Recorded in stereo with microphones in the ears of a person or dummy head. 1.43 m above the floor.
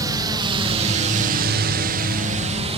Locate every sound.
0.0 s a drone: 20° right (ahead or behind); by 2.8 s 25° right (ahead or behind)